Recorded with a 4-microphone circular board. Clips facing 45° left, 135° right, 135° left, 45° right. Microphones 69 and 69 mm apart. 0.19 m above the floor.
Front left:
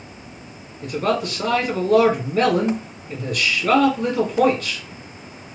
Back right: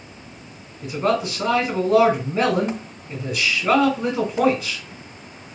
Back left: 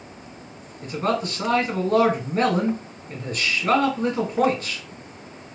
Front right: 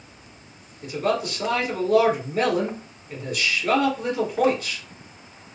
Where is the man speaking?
160° left, 1.4 m.